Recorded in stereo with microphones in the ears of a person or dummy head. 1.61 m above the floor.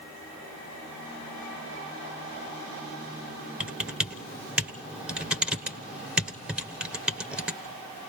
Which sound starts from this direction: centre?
Typing on a keyboard, at 3.6 s.